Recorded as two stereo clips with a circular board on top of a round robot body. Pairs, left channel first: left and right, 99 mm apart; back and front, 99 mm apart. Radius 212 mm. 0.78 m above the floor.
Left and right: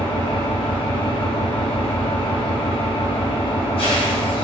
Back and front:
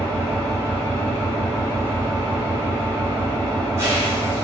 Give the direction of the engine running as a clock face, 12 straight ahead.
10 o'clock.